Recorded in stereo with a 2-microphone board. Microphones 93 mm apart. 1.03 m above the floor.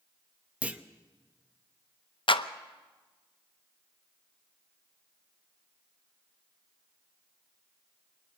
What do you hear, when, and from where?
0.6 s a clunk: 15° right (ahead or behind), 0.7 m
2.3 s a clap: 60° left (ahead or behind), 0.7 m